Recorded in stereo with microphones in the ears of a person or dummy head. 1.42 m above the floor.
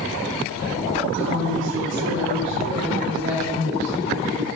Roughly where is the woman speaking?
Right.